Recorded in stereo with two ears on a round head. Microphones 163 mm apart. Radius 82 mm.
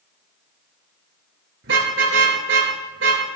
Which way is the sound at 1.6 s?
80° right.